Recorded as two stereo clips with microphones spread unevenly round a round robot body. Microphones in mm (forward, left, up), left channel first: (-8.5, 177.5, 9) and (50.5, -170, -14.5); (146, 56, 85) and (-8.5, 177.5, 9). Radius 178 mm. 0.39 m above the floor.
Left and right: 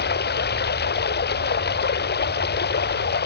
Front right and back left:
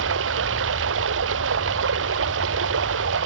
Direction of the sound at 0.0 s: 165° left.